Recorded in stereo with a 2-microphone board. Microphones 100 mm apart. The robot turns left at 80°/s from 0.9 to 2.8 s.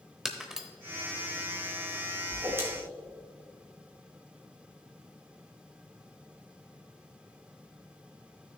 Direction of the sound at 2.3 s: 45° right (ahead or behind).